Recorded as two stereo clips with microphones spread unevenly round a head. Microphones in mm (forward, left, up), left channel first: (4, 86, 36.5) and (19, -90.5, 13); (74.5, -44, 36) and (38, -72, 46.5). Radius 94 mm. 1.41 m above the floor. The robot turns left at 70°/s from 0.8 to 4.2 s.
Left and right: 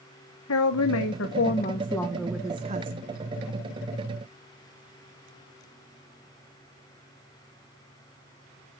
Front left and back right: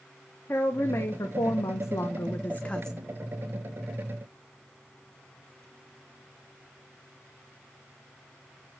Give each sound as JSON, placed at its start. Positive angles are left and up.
{"t": 0.5, "sound": "a woman speaking", "azimuth_deg": 105, "distance_m": 1.2}